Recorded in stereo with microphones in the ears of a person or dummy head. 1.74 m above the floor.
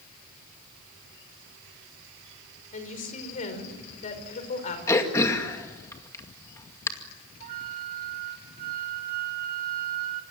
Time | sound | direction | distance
2.7 | a woman speaking | 45° left (ahead or behind) | 5.5 m
4.9 | throat clearing | 15° left (ahead or behind) | 2 m
7.4 | a flute | 45° right (ahead or behind) | 3 m